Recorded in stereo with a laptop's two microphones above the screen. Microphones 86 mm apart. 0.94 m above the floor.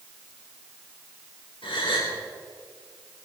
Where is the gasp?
75° left (ahead or behind), 4 m.